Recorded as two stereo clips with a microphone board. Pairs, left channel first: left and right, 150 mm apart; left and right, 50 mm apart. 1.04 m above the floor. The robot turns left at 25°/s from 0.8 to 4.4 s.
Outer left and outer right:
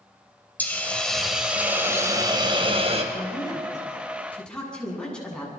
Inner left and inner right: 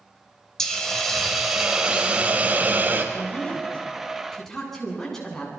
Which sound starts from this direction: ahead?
A hiss, at 0.6 s.